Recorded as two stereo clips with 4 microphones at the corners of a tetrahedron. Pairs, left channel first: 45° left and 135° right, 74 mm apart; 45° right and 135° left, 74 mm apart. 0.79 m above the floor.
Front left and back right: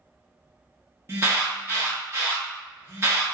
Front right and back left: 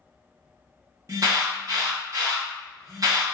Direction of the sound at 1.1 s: 170° left.